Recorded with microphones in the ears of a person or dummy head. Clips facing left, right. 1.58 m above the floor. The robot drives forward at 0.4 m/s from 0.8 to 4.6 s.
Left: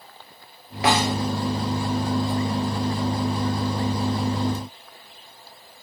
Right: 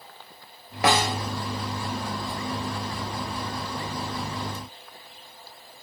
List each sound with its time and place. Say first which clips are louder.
0.8 s a snare drum: left 2 dB; 50° right (ahead or behind), 1.3 m; by 1.2 s 45° right (ahead or behind), 1.4 m